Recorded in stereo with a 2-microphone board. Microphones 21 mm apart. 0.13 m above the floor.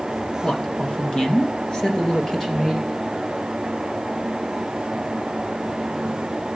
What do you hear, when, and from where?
0.4 s a man speaking: 35° left (ahead or behind), 1.9 m; by 2.9 s 25° left (ahead or behind), 4 m